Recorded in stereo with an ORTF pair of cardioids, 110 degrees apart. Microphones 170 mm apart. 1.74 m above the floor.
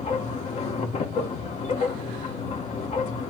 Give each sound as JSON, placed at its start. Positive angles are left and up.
{"t": 0.0, "sound": "a machine running", "azimuth_deg": 45, "distance_m": 2.0}